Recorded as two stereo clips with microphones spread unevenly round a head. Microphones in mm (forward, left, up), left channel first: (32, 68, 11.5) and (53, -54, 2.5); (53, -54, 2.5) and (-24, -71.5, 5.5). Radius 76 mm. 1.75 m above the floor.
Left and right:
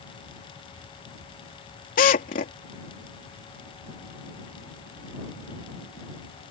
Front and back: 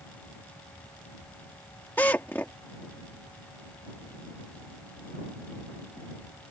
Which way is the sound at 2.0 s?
90° left.